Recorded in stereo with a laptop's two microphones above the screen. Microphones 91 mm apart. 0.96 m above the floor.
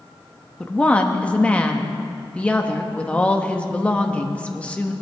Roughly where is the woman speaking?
Centre.